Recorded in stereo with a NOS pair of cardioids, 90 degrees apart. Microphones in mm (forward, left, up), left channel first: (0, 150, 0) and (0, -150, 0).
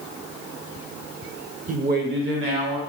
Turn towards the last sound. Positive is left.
turn(degrees=-50)